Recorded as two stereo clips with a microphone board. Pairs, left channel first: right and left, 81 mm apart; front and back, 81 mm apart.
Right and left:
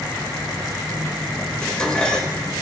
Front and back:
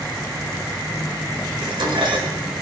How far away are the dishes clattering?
About 1.8 m.